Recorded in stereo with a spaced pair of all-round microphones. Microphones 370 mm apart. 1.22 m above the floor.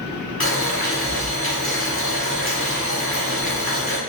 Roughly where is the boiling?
Left.